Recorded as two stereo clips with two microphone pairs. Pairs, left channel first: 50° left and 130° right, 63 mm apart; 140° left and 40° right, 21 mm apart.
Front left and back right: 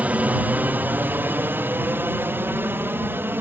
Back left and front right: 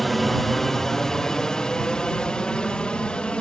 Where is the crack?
No crack in this recording.